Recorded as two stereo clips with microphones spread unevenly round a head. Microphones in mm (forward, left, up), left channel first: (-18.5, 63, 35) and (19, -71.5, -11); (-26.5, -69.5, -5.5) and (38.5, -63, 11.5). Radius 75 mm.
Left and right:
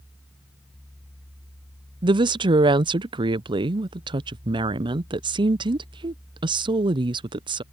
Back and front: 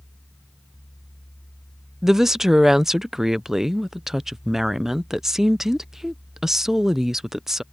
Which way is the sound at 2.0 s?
90° right.